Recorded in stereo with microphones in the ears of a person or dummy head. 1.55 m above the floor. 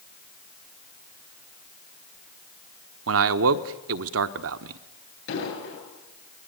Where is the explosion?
70° left (ahead or behind), 9 m.